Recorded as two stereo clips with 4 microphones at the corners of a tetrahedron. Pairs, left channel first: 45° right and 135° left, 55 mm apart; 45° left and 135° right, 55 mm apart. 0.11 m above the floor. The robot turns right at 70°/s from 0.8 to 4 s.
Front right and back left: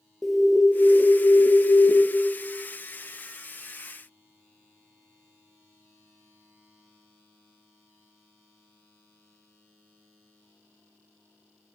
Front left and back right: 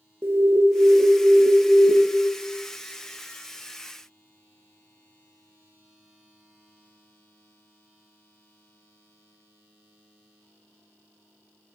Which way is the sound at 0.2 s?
130° right.